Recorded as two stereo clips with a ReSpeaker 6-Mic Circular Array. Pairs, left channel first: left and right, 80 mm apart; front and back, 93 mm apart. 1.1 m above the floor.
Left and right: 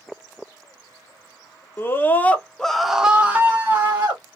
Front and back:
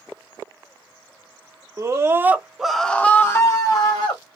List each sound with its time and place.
1.8 s a scream: 140° left, 0.8 m; by 4.4 s 35° right, 1.0 m